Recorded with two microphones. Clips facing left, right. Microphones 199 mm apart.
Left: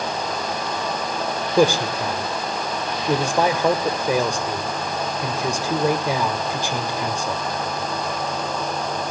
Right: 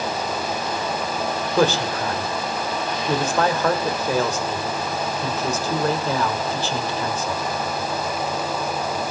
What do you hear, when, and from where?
1.6 s a man speaking: 15° left (ahead or behind), 2 m